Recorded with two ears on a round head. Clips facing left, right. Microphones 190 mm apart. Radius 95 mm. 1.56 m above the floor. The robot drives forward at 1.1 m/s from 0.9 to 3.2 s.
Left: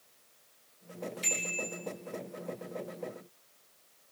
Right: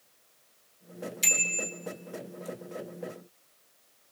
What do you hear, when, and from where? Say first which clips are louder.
1.2 s a bicycle bell: right 1 dB; 60° right (ahead or behind), 3.5 m; by 1.7 s 70° right (ahead or behind), 3 m